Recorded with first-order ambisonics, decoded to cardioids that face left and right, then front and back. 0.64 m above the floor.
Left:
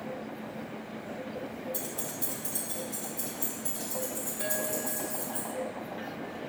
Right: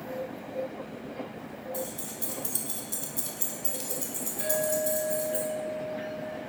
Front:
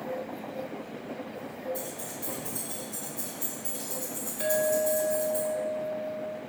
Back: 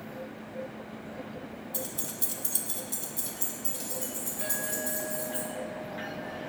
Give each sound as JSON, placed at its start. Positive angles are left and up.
{"t": 1.7, "sound": "keys jangling", "azimuth_deg": 160, "distance_m": 0.6}
{"t": 4.4, "sound": "a clink", "azimuth_deg": 5, "distance_m": 0.8}